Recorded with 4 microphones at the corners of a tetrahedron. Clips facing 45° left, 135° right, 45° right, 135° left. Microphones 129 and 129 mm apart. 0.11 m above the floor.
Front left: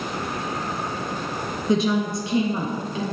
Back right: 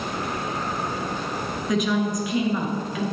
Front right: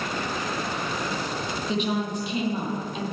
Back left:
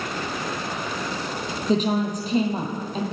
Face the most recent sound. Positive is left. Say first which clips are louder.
# front left 2 dB, back left 6 dB
turn(degrees=95)